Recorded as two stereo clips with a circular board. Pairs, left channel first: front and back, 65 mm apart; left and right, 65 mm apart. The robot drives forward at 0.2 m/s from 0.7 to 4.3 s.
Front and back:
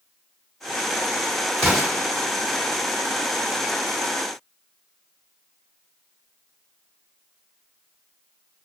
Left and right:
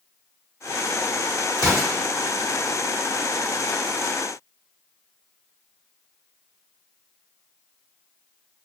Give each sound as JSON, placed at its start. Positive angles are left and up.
{"t": 1.6, "sound": "an explosion", "azimuth_deg": 80, "distance_m": 1.5}